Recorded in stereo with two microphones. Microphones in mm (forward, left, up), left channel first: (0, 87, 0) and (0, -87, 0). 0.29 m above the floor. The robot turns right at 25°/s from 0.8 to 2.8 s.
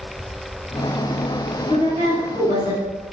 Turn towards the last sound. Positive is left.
turn(degrees=-30)  # may be behind; listen again after turning